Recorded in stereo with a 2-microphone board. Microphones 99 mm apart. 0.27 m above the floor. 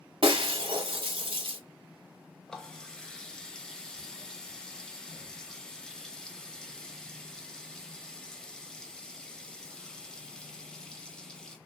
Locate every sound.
0.2 s breaking glass: 60° right (ahead or behind), 0.8 m
2.5 s a running tap: 10° left (ahead or behind), 0.6 m